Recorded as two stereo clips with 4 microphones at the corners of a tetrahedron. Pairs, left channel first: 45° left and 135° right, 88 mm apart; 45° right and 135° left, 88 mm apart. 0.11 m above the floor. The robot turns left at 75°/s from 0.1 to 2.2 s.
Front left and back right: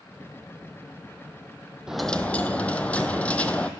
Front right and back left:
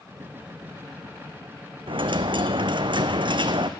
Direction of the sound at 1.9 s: 145° left.